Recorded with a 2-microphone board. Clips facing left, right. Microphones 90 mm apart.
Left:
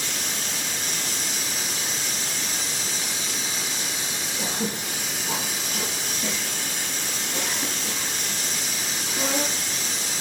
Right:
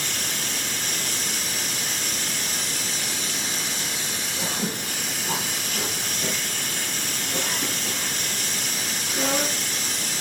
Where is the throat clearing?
65° right (ahead or behind), 3.5 m.